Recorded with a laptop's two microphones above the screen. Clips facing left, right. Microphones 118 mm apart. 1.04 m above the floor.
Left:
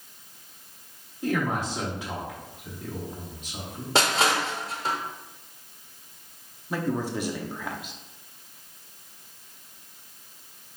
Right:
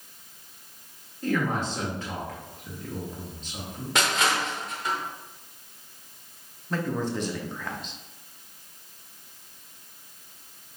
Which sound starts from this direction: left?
Crushing, at 4.0 s.